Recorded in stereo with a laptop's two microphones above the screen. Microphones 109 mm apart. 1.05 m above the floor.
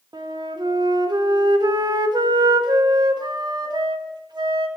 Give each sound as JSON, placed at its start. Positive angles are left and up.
{"t": 0.1, "sound": "a flute", "side_deg": -40, "distance_m": 1.0}